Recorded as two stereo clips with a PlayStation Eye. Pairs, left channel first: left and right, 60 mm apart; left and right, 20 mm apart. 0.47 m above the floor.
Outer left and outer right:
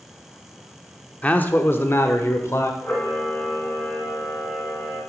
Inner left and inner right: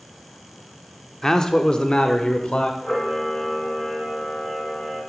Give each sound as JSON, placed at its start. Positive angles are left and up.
{"t": 1.2, "sound": "a man speaking", "side_deg": 25, "distance_m": 0.7}
{"t": 2.8, "sound": "a camera shutter", "side_deg": 30, "distance_m": 2.5}